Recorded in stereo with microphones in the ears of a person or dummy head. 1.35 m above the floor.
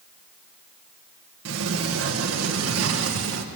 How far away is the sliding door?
About 1.3 m.